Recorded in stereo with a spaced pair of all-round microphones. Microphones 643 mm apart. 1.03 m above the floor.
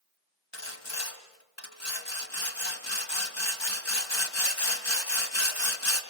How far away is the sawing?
About 2 m.